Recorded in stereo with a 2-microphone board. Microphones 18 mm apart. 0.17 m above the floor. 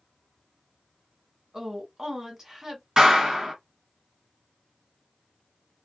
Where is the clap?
35° right (ahead or behind), 1.8 m.